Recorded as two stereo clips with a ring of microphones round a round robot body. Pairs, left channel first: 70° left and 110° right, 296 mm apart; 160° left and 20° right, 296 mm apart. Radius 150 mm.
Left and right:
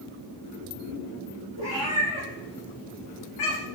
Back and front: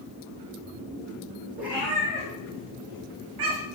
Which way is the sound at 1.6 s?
65° left.